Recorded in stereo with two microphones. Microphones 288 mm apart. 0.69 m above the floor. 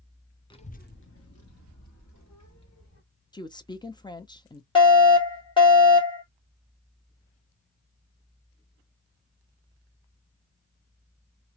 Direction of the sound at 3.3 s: 15° left (ahead or behind).